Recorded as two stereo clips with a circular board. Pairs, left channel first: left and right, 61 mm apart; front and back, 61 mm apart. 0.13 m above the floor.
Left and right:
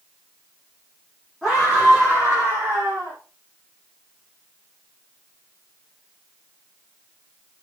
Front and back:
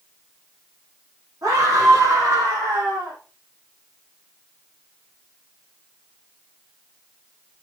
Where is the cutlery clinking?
No cutlery clinking in this recording.